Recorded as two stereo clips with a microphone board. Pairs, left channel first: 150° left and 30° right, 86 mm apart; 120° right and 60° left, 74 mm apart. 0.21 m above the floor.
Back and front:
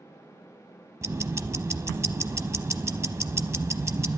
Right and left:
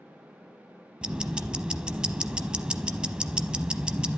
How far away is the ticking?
About 0.7 m.